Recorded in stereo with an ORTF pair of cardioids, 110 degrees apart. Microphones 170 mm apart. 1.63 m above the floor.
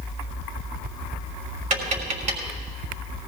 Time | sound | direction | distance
1.7 | tapping | 50° right | 3.5 m